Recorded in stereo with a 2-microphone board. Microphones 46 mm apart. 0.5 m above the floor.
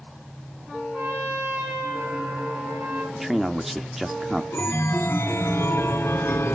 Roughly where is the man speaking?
Centre.